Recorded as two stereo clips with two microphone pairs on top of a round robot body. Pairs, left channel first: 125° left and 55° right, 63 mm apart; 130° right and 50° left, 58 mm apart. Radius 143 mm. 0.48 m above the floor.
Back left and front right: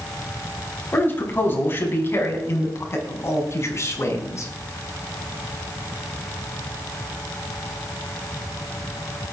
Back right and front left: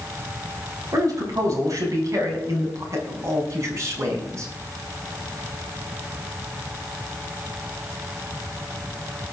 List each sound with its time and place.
0.9 s a man speaking: 70° left, 5.5 m; by 4.5 s 95° left, 7 m